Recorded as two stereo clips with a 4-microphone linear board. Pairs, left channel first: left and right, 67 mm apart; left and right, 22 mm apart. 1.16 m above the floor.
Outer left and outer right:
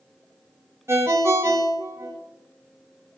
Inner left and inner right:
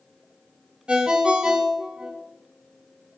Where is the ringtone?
40° right (ahead or behind), 0.6 m.